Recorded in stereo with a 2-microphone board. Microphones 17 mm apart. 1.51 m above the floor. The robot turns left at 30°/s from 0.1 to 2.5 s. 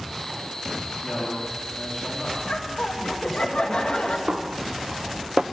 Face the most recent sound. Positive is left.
turn(degrees=-60)  # may be behind; listen again after turning